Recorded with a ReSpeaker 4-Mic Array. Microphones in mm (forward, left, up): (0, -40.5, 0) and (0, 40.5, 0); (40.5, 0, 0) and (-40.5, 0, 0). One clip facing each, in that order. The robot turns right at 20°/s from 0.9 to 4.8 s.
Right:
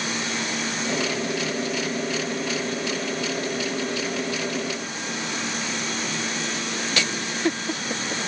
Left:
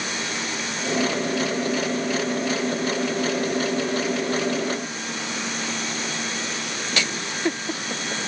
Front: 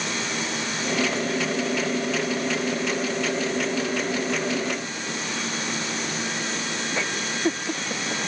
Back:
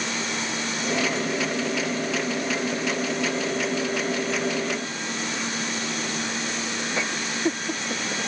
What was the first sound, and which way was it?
Only background noise.